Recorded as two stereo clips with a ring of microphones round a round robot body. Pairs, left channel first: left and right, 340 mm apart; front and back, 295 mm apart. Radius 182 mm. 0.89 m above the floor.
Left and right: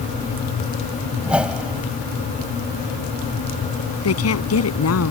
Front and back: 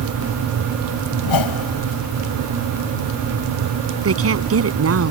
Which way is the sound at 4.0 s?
140° left.